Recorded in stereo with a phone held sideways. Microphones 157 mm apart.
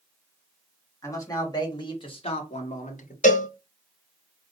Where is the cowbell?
55° left (ahead or behind), 1.0 m.